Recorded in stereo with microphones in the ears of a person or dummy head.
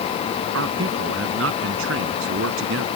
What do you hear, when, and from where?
0.5 s a man speaking: 90° right; by 2.9 s 85° right